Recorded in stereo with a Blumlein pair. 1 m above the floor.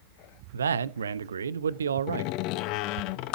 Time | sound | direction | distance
0.5 | a man speaking | 70° right | 0.7 m
2.1 | a door slam | 40° left | 0.8 m